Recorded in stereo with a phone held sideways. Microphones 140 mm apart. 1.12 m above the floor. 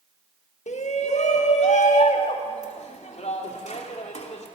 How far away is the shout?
About 1.8 m.